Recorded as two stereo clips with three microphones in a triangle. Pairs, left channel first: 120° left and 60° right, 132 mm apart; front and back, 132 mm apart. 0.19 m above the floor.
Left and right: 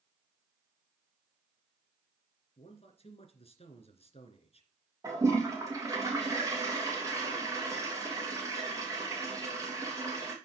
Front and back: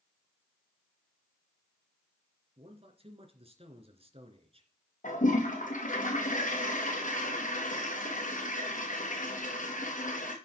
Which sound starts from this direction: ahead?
A toilet flushing, at 5.0 s.